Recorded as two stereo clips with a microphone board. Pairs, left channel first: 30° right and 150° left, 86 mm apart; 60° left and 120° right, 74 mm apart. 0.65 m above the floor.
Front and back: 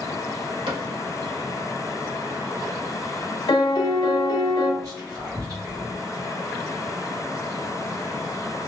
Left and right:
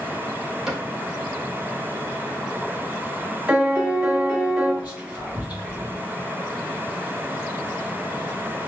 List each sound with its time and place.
0.7 s a cupboard door: 155° left, 1.0 m
3.5 s a piano: 50° right, 0.8 m
4.8 s whispering: 175° left, 1.5 m